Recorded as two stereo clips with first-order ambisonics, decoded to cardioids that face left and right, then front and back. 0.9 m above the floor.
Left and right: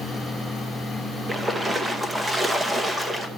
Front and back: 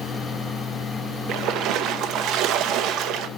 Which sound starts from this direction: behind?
A splash, at 1.3 s.